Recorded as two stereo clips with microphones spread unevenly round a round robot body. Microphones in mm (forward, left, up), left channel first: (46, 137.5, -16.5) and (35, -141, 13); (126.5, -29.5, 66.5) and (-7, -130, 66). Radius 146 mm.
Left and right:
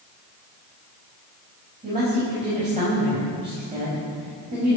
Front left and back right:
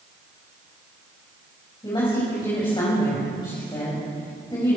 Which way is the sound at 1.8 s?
25° right.